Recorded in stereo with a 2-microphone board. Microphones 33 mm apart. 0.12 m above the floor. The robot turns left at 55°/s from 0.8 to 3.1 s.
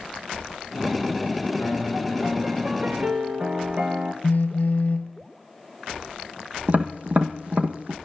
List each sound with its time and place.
1.6 s a piano: 40° left, 1.9 m; by 4.1 s 40° right, 1.9 m
4.2 s a phone buzzing: 60° left (ahead or behind), 1.0 m
6.7 s tapping: 50° right (ahead or behind), 1.5 m